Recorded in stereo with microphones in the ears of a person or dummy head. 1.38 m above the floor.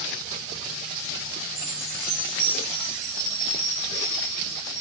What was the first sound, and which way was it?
A chime, 45° right (ahead or behind).